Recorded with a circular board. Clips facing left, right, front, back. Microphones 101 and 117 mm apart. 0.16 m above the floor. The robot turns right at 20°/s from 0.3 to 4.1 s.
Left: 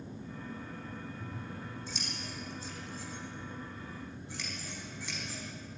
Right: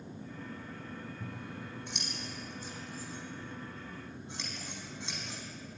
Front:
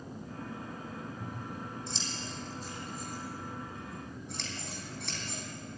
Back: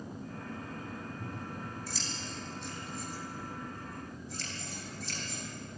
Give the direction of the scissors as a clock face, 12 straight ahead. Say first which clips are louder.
Even, even; 3 o'clock.